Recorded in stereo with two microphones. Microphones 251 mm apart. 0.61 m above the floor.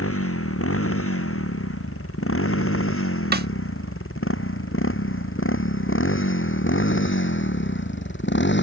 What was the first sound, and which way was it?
A motorcycle, 65° left (ahead or behind).